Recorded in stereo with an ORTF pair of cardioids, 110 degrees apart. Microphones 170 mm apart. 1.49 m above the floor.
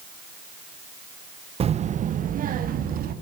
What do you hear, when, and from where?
1.6 s a child speaking: 35° right, 0.9 m; by 3.1 s 60° right, 3 m